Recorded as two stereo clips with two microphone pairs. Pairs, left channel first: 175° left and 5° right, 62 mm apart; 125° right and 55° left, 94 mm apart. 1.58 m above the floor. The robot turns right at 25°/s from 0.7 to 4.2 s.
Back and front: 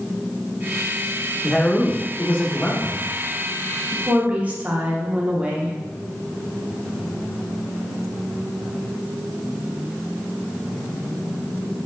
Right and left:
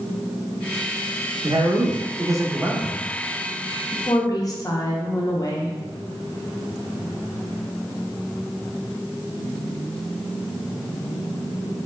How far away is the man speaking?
About 0.6 m.